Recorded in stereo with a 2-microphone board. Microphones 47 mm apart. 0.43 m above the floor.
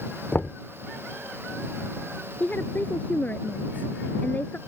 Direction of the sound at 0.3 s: 35° left (ahead or behind).